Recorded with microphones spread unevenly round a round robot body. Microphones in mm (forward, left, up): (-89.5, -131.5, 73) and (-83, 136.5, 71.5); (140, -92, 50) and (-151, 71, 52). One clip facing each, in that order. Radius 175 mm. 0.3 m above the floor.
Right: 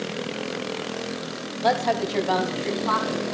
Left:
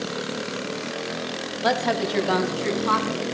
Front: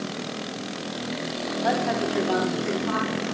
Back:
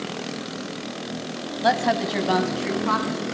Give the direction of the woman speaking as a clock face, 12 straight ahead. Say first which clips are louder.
Even, back 2 dB; 7 o'clock.